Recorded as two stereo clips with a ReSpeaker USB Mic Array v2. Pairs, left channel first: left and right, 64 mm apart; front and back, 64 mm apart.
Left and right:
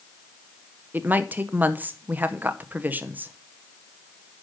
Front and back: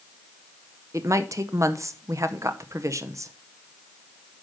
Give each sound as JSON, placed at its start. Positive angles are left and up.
{"t": 0.9, "sound": "a woman speaking", "azimuth_deg": -150, "distance_m": 0.8}